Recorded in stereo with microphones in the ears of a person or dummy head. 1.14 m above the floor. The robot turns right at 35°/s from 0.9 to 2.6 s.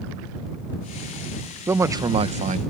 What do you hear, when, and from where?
1.7 s a man speaking: 170° right; by 2.6 s 135° right